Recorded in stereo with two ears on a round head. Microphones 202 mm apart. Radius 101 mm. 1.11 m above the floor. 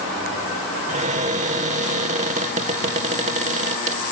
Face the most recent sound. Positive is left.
turn(degrees=-35)  # may be behind; listen again after turning